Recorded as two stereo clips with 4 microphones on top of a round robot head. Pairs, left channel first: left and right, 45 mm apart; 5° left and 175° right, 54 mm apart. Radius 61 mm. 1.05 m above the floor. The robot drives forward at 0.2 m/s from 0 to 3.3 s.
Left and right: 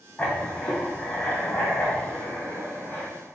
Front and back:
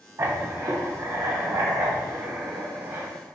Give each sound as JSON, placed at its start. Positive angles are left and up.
{"t": 0.2, "sound": "writing", "azimuth_deg": 160, "distance_m": 0.8}